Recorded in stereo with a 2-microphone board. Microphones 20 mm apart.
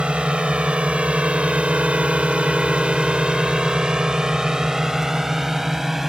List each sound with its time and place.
0.0 s a drone: 60° right (ahead or behind); by 6.1 s 20° right (ahead or behind)